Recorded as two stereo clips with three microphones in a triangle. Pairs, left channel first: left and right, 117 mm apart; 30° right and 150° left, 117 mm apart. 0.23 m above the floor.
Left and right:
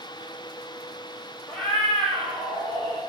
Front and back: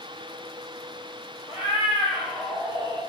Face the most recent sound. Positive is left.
turn(degrees=15)